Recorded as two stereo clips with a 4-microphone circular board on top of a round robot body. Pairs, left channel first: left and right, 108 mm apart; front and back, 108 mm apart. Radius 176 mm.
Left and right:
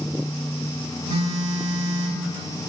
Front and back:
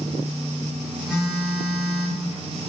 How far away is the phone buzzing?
About 2.5 m.